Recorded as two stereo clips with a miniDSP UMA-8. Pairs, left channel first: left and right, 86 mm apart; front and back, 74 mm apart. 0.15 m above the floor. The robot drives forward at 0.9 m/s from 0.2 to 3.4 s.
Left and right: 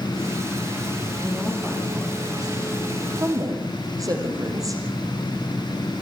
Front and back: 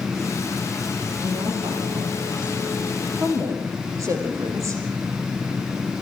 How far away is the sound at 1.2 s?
About 7 m.